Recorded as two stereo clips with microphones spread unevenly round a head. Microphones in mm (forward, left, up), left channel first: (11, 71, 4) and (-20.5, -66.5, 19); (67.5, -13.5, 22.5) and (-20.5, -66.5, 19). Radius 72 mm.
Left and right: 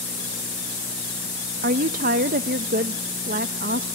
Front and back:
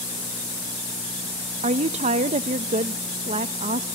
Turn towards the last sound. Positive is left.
turn(degrees=-135)